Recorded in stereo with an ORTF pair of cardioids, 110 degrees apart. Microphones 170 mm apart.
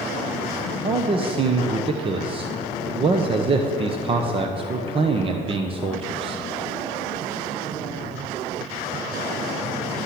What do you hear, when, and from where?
0.8 s a man speaking: 30° right, 1.0 m